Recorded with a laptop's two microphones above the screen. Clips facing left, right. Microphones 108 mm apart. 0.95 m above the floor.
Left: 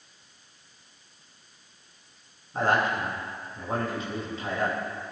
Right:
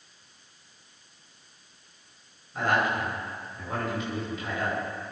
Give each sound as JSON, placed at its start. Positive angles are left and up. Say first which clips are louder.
{"t": 2.5, "sound": "a man speaking", "louder": "left 1 dB", "side_deg": 35, "distance_m": 4.0}